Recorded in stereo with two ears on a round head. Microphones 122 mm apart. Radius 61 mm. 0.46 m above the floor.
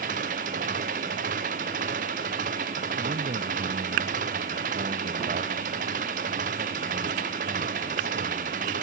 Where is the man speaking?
65° right (ahead or behind).